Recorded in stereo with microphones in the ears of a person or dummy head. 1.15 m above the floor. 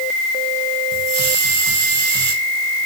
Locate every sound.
0.9 s a hiss: 75° right (ahead or behind), 4.5 m